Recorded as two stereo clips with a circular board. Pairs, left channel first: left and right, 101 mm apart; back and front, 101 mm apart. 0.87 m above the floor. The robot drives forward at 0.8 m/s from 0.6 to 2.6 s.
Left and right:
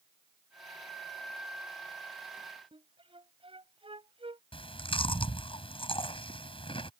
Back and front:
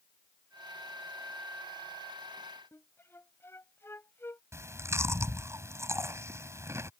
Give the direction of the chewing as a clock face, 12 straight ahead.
10 o'clock.